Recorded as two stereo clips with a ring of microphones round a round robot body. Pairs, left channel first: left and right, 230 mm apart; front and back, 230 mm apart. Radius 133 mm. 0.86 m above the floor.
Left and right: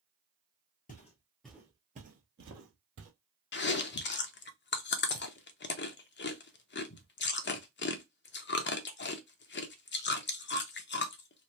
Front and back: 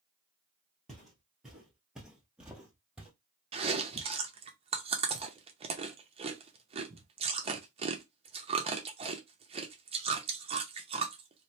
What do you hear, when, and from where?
0.9 s footsteps: 90° left, 0.9 m; by 3.1 s 95° right, 1.5 m
3.5 s chewing: 120° left, 0.6 m